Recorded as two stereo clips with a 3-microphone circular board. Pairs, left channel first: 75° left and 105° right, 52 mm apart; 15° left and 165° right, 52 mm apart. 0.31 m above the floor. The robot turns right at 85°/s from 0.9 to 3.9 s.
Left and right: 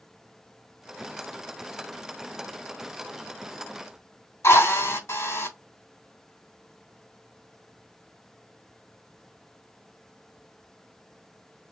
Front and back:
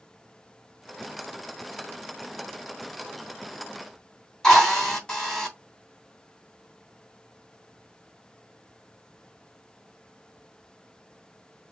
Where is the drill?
85° left, 3 m.